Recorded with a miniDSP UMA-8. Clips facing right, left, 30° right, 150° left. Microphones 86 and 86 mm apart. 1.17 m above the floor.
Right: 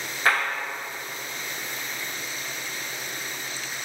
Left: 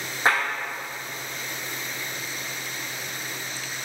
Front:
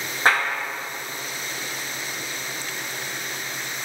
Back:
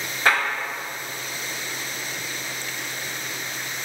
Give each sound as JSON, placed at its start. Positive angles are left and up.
{"t": 0.2, "sound": "a clap", "azimuth_deg": 25, "distance_m": 1.1}